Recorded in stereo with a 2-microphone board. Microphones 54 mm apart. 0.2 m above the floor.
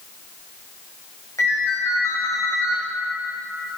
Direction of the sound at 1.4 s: 75° left (ahead or behind).